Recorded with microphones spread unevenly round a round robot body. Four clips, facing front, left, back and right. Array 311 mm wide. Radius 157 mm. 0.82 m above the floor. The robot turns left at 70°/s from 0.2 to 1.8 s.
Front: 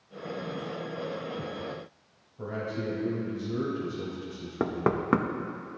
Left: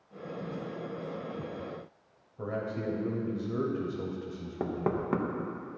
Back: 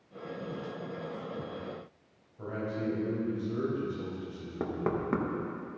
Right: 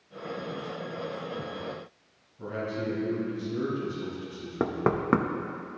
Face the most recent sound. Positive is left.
turn(degrees=-35)